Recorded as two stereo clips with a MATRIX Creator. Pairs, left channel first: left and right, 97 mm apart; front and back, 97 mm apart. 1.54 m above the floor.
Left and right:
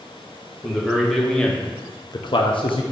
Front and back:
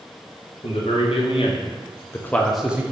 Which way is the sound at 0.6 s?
5° right.